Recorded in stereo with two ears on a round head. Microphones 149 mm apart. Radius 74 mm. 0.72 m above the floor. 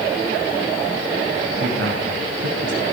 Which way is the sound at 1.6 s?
75° right (ahead or behind).